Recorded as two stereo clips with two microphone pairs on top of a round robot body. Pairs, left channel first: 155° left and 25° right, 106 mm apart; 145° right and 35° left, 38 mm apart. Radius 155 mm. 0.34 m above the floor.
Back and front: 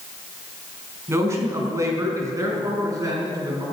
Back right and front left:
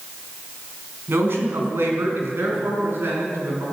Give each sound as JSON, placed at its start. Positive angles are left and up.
{"t": 1.1, "sound": "a man speaking", "azimuth_deg": 40, "distance_m": 4.5}